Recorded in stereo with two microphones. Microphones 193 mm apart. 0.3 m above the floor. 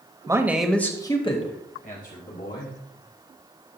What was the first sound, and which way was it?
A man speaking, 20° right (ahead or behind).